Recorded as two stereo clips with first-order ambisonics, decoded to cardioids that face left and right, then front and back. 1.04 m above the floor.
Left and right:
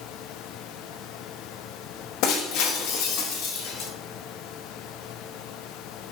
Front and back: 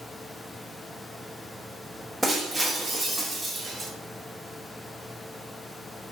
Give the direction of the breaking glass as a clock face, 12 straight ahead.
9 o'clock.